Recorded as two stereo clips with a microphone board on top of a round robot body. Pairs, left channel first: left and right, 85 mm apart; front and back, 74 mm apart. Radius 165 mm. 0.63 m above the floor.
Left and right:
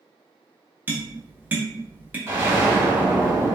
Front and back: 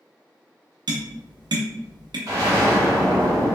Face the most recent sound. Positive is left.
turn(degrees=-145)